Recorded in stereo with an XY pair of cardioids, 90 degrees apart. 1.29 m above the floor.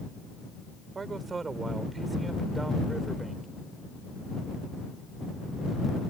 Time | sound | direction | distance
0.9 | a man speaking | 45° right | ?